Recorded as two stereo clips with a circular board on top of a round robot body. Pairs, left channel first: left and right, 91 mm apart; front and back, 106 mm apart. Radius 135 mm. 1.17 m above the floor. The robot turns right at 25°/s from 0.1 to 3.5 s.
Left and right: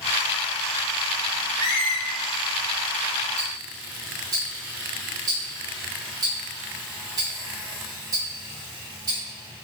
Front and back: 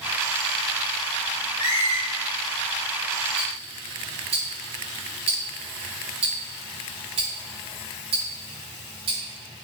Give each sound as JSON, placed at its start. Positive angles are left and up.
{"t": 1.6, "sound": "a squeak", "azimuth_deg": 40, "distance_m": 1.5}
{"t": 3.4, "sound": "ticking", "azimuth_deg": -155, "distance_m": 1.5}